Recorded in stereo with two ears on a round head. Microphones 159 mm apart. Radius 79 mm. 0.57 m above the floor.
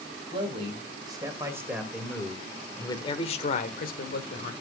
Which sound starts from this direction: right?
A man speaking, at 0.3 s.